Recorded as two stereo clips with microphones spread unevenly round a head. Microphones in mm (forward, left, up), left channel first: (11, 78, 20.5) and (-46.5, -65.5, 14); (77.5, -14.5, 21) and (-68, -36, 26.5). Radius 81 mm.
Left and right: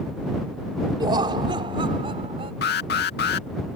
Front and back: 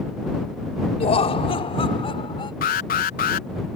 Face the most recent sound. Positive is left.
turn(degrees=40)